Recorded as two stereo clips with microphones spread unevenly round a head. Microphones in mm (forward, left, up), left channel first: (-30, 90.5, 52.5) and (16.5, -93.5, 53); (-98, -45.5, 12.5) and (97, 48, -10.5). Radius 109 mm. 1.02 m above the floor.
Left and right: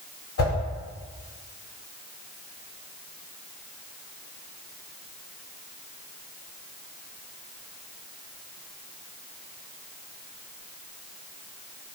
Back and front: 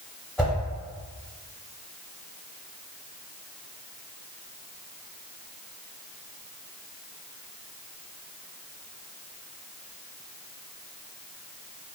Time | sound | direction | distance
0.4 | a whoosh | 120° left | 1.5 m